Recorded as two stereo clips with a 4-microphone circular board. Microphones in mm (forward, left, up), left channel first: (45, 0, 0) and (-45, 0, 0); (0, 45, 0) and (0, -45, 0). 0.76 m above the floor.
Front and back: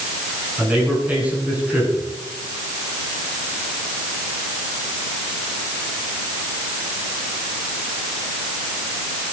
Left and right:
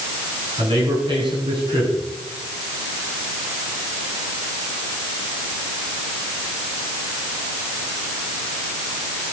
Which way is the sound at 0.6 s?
105° right.